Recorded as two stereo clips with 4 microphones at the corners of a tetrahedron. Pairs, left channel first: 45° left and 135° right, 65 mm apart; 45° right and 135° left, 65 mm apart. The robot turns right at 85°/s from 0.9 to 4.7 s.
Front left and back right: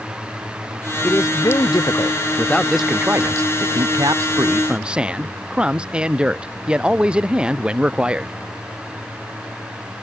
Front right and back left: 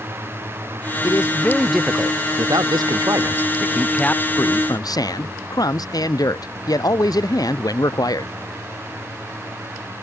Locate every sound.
1.0 s a man speaking: 10° right; by 8.3 s 60° right